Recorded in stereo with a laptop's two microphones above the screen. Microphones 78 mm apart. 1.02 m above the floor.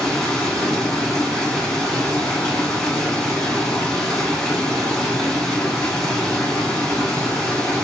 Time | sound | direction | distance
0.0 | running water | 10° left (ahead or behind) | 1.2 m